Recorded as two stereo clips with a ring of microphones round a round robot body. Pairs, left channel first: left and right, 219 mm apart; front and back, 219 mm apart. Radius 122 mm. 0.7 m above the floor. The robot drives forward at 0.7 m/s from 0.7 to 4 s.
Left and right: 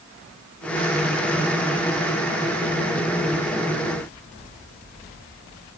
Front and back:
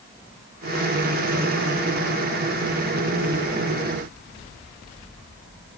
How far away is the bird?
I don't hear a bird.